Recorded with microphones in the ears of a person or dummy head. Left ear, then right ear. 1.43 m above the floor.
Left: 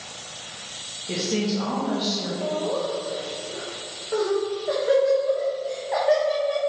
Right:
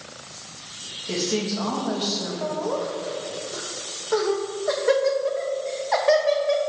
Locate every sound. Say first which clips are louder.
1.1 s a woman speaking: even; 15° right (ahead or behind), 1.6 m
2.4 s laughter: left 1 dB; 30° right (ahead or behind), 0.7 m